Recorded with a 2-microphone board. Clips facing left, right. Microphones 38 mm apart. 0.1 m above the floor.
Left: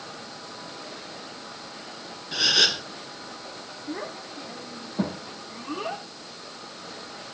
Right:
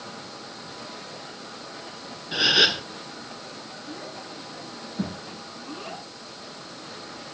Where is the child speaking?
60° left (ahead or behind), 4.5 m.